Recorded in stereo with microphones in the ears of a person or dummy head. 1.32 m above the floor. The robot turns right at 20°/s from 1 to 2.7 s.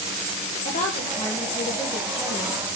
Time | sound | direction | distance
0.7 | a woman speaking | 140° left | 1.5 m